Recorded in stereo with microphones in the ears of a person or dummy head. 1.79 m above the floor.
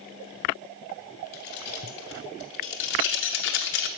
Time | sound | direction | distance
1.3 | keys jangling | 55° left (ahead or behind) | 3 m